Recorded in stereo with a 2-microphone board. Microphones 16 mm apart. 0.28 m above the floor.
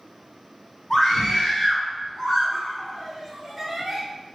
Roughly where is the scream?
Left.